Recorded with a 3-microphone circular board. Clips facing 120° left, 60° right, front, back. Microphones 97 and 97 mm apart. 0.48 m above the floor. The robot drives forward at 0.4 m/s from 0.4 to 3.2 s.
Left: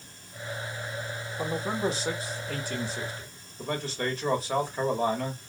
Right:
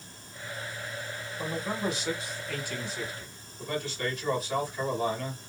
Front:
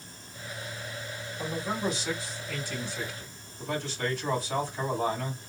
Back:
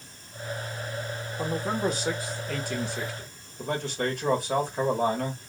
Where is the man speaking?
160° left, 1.1 m; by 5.4 s 170° left, 1.6 m.